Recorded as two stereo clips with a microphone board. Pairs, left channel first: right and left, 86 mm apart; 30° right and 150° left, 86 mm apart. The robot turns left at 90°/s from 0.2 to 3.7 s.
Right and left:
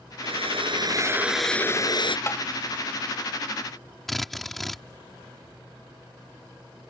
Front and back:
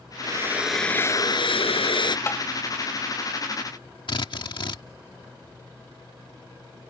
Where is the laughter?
I don't hear laughter.